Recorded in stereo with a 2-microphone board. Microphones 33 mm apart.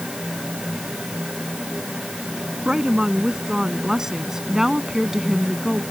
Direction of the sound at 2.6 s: 25° right (ahead or behind).